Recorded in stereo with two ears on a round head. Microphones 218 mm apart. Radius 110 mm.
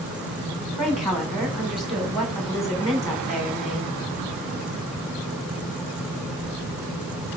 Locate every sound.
0.8 s a woman speaking: centre (ahead or behind), 4.5 m